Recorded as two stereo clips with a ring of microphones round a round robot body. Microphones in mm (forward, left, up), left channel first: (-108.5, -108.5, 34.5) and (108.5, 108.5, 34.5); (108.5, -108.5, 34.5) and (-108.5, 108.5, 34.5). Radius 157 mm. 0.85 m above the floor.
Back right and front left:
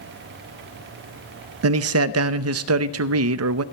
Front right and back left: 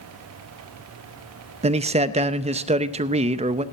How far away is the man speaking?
About 0.7 m.